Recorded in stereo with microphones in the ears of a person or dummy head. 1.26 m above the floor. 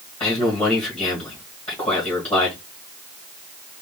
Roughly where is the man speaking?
Centre.